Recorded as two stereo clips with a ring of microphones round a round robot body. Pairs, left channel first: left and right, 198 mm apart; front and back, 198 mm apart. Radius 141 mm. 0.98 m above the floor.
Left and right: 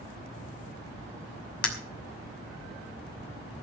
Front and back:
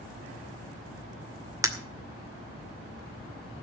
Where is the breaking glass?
105° left, 2.5 m.